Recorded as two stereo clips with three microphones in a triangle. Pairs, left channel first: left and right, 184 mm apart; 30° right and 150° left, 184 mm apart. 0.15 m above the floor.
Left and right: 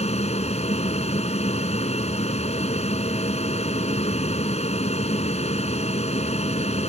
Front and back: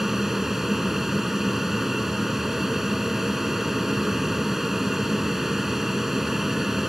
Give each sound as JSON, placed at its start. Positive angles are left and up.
{"t": 0.0, "sound": "an aircraft", "azimuth_deg": 60}